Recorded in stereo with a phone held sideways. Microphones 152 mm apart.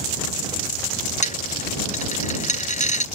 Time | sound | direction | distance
1.2 | a dropped coin | 50° left (ahead or behind) | ?